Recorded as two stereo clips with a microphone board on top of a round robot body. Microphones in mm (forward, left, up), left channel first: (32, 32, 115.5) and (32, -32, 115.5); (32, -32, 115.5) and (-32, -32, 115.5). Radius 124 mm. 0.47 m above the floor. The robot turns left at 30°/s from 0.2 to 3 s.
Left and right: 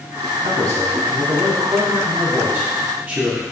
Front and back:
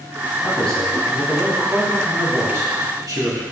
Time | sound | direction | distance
0.4 | a man speaking | 75° right | 3.5 m